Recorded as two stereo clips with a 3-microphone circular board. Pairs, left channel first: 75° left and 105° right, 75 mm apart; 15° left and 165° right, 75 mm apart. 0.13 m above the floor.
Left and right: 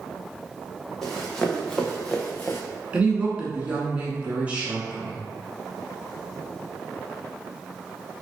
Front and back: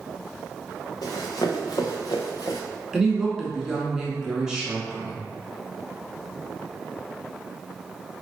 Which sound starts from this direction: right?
A woman speaking, at 2.9 s.